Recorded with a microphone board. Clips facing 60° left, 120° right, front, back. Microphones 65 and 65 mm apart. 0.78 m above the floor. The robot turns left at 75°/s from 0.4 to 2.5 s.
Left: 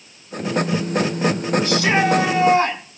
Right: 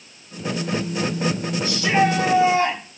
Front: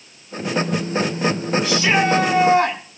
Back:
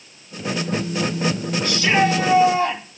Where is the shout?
80° left, 7 m; by 2.8 s 15° left, 7 m.